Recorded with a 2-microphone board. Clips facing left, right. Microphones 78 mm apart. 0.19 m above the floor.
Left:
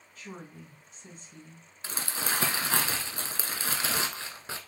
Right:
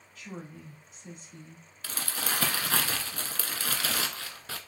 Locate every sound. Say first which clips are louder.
0.1 s a woman speaking: right 1 dB; 35° left (ahead or behind), 1.8 m
1.8 s crumpling: left 1 dB; 25° left (ahead or behind), 0.7 m